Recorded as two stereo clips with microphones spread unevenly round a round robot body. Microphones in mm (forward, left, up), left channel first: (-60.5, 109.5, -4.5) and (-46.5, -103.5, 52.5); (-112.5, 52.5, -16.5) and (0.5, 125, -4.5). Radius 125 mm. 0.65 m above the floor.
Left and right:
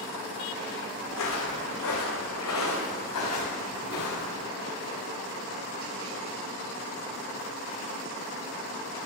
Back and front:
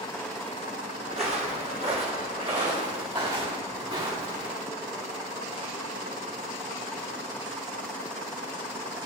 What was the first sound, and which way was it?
Footsteps, 65° left.